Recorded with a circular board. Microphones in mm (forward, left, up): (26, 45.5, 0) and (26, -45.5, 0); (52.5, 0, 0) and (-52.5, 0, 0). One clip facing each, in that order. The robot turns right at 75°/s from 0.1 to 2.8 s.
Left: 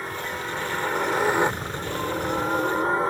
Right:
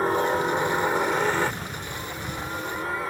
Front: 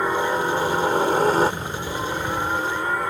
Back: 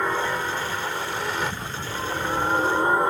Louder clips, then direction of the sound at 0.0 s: Right 9 dB, front 4 dB; 75° right.